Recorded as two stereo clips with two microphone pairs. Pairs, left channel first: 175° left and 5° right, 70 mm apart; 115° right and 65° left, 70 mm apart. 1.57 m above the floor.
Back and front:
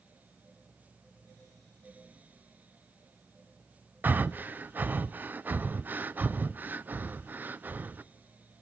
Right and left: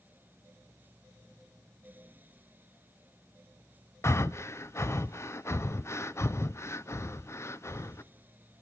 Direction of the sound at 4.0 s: 70° right.